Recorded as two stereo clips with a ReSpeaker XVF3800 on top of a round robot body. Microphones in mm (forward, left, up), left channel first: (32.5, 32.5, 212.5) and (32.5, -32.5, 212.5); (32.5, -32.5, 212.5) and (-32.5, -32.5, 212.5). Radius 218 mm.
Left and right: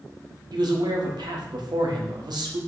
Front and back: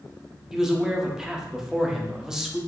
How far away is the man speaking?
About 1.6 m.